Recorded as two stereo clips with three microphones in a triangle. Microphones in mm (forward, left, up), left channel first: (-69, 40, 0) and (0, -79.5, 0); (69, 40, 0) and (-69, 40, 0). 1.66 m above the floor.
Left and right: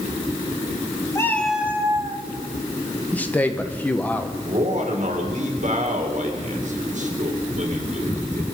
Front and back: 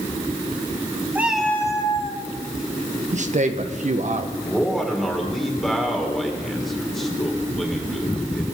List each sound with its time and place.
1.1 s a cat meowing: 125° left, 1.1 m; by 2.2 s 20° right, 1.5 m
3.1 s a man speaking: 160° right, 1.1 m
4.4 s a man speaking: 85° right, 2.5 m